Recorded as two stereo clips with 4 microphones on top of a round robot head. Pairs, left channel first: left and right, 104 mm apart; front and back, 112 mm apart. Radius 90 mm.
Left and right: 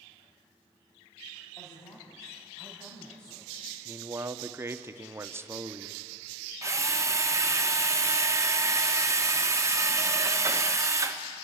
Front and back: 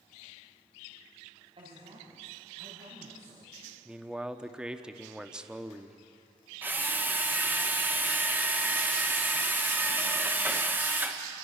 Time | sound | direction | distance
1.6 | a man speaking | 145° left | 4.5 m
3.9 | a man speaking | 105° right | 1.0 m
6.6 | a drill | 120° right | 1.4 m